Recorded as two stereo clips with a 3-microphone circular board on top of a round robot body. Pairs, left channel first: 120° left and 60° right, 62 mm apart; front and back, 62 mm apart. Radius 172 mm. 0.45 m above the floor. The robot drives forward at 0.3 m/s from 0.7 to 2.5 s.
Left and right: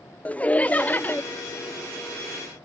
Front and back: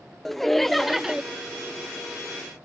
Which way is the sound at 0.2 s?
80° left.